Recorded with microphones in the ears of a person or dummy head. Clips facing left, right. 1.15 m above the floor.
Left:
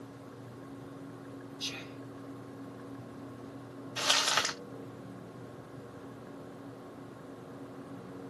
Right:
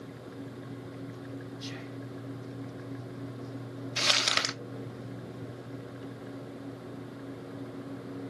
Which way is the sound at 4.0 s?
30° right (ahead or behind).